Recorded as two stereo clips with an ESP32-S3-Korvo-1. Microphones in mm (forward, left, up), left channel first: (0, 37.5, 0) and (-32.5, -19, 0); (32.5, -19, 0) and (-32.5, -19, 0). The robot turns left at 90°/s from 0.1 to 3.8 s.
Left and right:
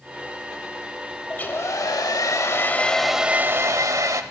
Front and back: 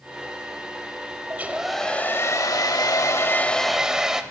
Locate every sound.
1.3 s a hair dryer: 130° left, 0.7 m; by 4.2 s 95° right, 0.7 m